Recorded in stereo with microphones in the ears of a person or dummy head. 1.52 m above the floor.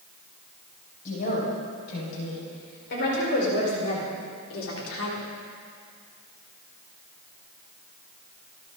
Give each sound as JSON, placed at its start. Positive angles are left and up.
{"t": 1.1, "sound": "a woman speaking", "side_deg": 50, "distance_m": 7.0}